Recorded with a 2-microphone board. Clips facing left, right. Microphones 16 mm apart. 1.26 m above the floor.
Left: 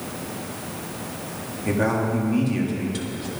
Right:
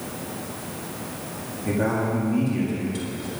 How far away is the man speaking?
About 1.9 m.